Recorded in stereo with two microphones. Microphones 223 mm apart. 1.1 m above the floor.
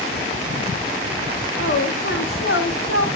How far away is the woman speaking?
About 2.5 m.